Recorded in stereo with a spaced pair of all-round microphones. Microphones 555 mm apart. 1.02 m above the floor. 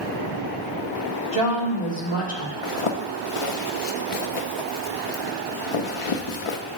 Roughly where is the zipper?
Left.